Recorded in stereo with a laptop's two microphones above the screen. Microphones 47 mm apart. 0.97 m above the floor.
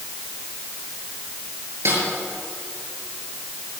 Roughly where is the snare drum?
Right.